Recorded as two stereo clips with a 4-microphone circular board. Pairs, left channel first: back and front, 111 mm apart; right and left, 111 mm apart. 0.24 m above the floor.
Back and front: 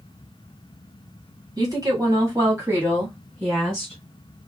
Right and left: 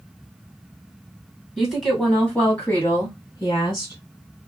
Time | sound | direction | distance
1.6 | a woman speaking | 10° left | 1.8 m